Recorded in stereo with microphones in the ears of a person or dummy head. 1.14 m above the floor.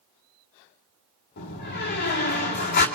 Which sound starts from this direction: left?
A door slam, at 1.4 s.